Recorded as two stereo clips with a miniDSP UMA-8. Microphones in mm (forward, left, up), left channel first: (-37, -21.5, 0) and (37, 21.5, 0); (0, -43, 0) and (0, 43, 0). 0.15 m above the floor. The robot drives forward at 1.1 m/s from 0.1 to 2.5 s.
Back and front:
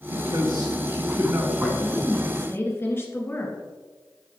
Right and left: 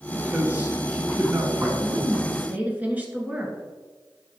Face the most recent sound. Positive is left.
turn(degrees=155)